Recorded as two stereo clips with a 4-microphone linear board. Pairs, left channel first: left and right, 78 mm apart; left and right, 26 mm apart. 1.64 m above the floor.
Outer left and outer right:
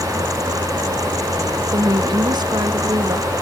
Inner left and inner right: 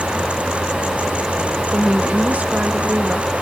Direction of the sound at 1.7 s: 65° right (ahead or behind).